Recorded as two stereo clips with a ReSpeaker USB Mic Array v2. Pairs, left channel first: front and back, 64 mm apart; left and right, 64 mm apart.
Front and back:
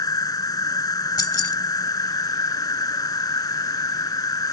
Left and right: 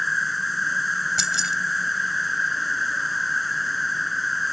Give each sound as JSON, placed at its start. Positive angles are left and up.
{"t": 0.0, "sound": "an insect", "azimuth_deg": 0}
{"t": 1.2, "sound": "keys jangling", "azimuth_deg": -5}